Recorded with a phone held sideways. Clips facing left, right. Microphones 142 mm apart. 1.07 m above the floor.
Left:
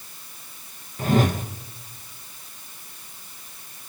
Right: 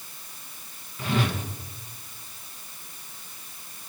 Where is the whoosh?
40° left (ahead or behind), 1.3 m.